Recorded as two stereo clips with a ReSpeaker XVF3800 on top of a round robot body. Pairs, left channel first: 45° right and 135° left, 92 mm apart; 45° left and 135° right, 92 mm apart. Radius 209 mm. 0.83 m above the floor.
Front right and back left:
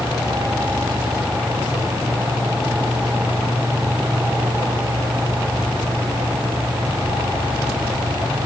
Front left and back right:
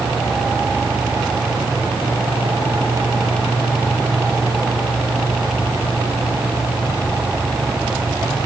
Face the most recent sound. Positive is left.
No sound to turn to.